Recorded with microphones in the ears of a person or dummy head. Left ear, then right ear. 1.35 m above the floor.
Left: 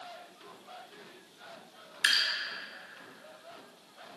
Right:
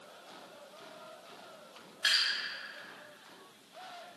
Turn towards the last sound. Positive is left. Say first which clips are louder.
# left 2 dB
turn(degrees=55)  # may be behind; listen again after turning